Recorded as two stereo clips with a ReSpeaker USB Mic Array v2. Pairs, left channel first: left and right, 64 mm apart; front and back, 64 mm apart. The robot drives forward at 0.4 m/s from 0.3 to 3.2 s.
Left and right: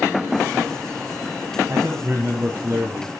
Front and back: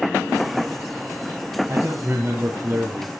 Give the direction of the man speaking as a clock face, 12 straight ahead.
4 o'clock.